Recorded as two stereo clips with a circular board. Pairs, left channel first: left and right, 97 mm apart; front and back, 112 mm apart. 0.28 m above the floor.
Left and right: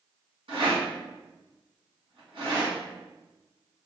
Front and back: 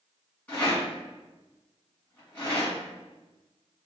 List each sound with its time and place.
0.5 s a rattle: 80° right, 1.9 m